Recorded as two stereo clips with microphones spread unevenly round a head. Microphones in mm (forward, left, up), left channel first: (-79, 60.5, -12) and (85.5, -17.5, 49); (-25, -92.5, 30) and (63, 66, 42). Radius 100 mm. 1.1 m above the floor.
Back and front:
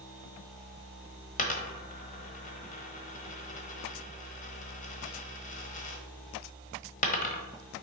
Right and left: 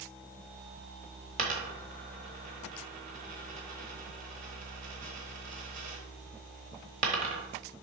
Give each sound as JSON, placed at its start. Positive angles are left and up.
{"t": 1.4, "sound": "a dropped coin", "azimuth_deg": 100, "distance_m": 1.2}